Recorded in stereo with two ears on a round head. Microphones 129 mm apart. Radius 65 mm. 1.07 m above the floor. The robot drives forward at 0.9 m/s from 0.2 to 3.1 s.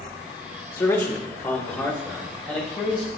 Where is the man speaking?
20° left (ahead or behind), 0.8 m; by 3.1 s 5° left (ahead or behind), 2.5 m.